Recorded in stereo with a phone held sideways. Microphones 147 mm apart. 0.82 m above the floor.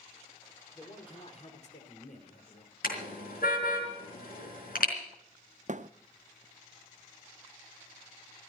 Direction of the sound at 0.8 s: 25° left (ahead or behind).